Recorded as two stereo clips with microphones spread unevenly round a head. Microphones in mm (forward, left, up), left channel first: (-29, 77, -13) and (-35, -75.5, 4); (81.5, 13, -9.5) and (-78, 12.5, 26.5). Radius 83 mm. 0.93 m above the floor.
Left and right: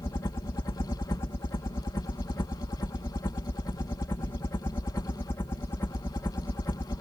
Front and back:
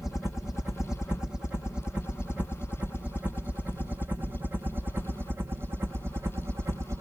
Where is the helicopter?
65° left; by 7.0 s 105° left.